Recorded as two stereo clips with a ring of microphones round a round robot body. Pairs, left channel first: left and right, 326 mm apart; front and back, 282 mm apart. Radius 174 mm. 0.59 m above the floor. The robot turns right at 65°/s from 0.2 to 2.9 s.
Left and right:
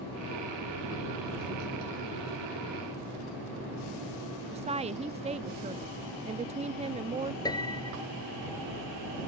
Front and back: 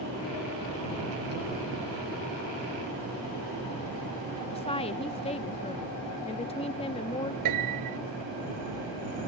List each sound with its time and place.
4.5 s a woman speaking: 40° right
7.5 s a piano: 170° left